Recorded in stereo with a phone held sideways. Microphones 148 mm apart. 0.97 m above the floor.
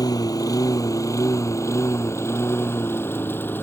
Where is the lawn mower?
25° left (ahead or behind); by 3.6 s 15° left (ahead or behind).